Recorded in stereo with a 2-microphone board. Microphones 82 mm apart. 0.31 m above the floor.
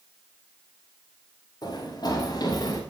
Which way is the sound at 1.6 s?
55° left (ahead or behind).